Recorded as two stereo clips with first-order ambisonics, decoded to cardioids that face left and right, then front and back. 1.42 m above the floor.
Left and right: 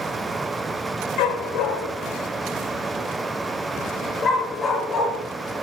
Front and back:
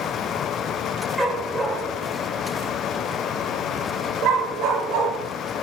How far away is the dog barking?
About 2.5 m.